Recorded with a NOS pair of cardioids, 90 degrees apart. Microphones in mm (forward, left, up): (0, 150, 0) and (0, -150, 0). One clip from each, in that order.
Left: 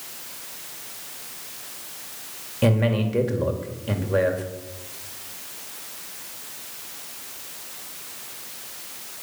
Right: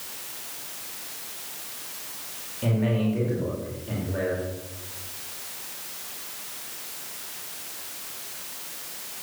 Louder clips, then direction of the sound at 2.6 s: Left 5 dB; 70° left.